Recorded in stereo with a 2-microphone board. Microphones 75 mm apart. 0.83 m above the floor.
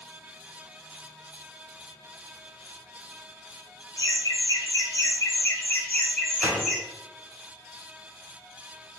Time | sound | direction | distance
4.0 | laughter | 55° left (ahead or behind) | 1.2 m
6.4 | a gunshot | 20° right (ahead or behind) | 1.1 m